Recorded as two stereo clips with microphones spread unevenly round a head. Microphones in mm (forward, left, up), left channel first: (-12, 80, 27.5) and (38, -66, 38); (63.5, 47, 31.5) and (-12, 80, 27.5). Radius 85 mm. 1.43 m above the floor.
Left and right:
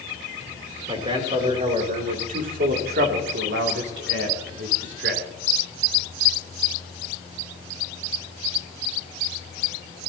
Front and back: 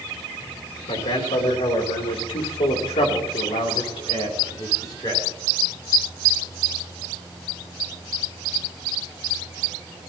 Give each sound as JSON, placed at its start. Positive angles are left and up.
{"t": 0.9, "sound": "a man speaking", "azimuth_deg": -10, "distance_m": 3.0}